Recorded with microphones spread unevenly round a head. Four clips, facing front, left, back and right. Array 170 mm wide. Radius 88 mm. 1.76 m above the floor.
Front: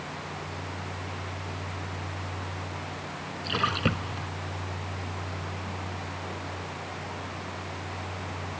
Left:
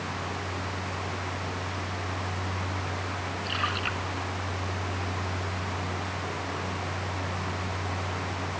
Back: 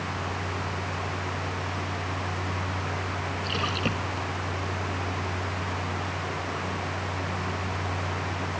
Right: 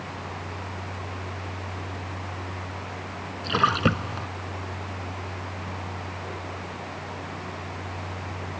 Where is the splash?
85° right.